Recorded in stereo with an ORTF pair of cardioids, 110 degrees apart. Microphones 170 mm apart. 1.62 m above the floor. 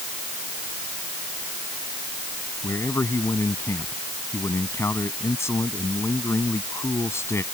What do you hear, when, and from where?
2.6 s a man speaking: 15° left